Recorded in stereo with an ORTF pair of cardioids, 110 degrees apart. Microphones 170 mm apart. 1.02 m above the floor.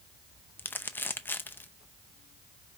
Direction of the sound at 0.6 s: 10° left.